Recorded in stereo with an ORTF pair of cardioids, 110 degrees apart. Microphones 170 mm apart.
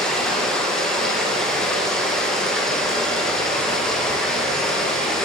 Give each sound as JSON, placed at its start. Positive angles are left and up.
{"t": 0.0, "sound": "running water", "azimuth_deg": 5, "distance_m": 1.2}